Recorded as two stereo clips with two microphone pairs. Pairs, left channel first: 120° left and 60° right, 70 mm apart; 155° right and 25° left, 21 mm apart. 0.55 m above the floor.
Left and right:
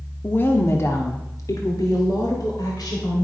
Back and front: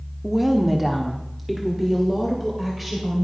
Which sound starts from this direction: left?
A woman speaking, at 0.2 s.